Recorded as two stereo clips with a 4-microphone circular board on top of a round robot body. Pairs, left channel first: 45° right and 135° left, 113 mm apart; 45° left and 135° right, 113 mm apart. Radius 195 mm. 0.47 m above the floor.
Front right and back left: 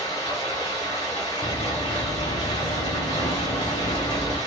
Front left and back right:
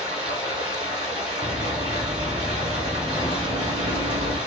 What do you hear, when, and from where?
0.0 s running water: 90° right, 0.7 m
1.4 s running footsteps: 70° right, 1.2 m; by 4.4 s 15° left, 1.2 m